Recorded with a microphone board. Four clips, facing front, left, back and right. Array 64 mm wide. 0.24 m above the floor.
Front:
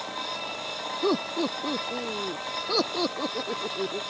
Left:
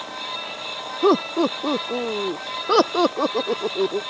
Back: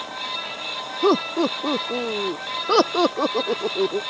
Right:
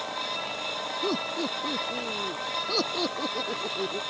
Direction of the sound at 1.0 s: 120° left.